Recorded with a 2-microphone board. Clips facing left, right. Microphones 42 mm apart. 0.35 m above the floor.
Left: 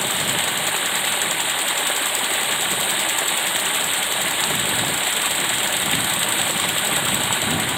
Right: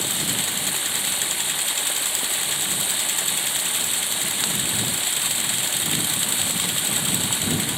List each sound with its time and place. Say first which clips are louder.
0.0 s running water: left 5 dB; 30° left (ahead or behind)